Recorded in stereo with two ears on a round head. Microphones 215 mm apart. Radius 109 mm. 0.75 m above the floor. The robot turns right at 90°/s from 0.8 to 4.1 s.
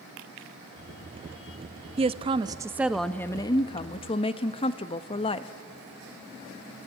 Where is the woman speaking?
25° right (ahead or behind), 0.5 m; by 5.5 s 25° left (ahead or behind), 0.5 m.